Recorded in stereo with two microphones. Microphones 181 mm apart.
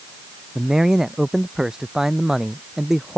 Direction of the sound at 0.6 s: 5° right (ahead or behind).